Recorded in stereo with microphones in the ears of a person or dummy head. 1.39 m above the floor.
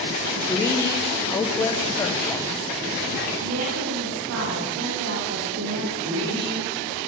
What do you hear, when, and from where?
0.5 s a woman speaking: 15° left (ahead or behind), 1.0 m
3.4 s a woman speaking: 75° right (ahead or behind), 2 m
6.0 s a woman speaking: 85° right, 5.5 m